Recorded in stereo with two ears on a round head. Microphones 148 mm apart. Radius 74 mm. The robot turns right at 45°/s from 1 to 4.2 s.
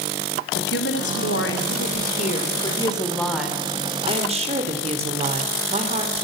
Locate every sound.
0.6 s a woman speaking: 75° left, 3 m; by 6.2 s 140° right, 3 m